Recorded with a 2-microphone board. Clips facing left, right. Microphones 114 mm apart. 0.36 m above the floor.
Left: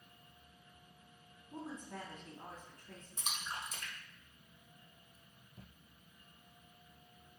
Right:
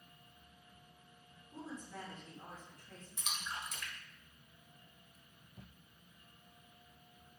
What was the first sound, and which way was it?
A woman speaking, 65° left (ahead or behind).